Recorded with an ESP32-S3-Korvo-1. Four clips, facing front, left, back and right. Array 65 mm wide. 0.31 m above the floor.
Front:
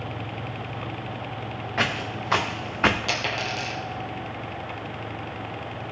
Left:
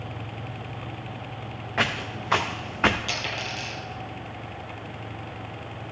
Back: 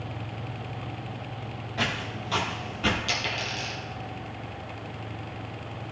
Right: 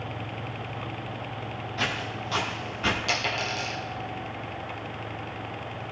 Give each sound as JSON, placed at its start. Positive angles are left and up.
{"t": 1.8, "sound": "footsteps", "azimuth_deg": 50, "distance_m": 1.8}
{"t": 3.1, "sound": "a dropped coin", "azimuth_deg": -25, "distance_m": 3.0}